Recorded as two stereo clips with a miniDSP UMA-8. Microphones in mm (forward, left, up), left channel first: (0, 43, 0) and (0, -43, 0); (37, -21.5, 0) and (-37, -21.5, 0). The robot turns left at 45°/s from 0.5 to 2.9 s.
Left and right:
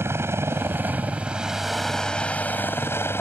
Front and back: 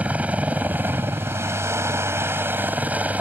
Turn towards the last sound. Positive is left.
turn(degrees=125)